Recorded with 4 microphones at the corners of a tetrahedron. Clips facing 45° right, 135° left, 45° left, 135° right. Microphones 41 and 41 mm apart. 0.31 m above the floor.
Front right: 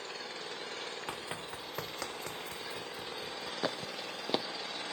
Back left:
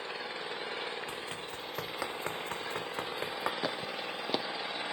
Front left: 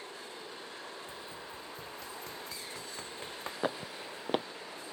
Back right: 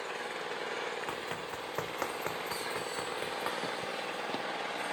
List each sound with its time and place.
0.0 s an engine running: 155° right
1.1 s running footsteps: 110° right; by 3.5 s 145° left
3.6 s footsteps: 40° left